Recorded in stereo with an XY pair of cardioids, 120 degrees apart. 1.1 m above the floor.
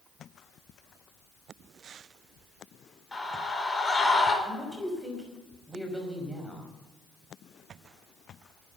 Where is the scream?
15° left, 4.5 m.